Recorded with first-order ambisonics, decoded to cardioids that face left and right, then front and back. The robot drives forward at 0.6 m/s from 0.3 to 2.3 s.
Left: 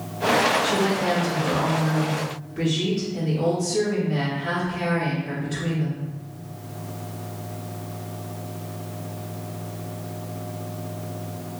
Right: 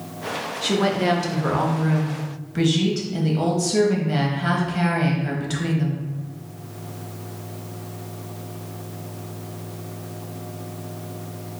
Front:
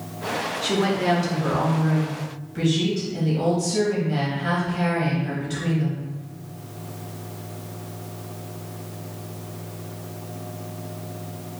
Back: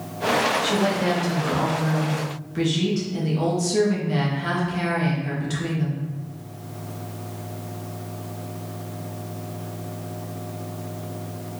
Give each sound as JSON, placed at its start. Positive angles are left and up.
{"t": 0.6, "sound": "a woman speaking", "azimuth_deg": -65, "distance_m": 1.3}